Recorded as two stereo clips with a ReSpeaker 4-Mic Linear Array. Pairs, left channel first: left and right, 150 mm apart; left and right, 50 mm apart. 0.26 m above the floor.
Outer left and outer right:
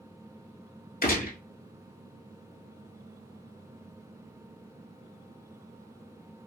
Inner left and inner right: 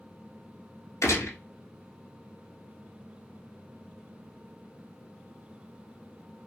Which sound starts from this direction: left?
A gunshot, at 1.0 s.